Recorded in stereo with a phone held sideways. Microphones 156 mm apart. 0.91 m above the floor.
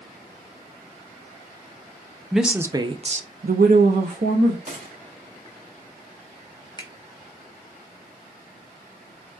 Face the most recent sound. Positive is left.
turn(degrees=30)  # may be behind; listen again after turning